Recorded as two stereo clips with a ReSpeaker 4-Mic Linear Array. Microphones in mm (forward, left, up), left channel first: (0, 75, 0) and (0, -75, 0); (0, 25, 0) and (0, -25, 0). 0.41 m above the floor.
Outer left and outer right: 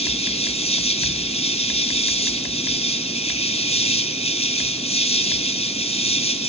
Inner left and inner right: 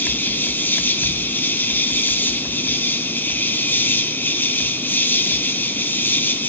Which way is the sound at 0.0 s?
45° left (ahead or behind).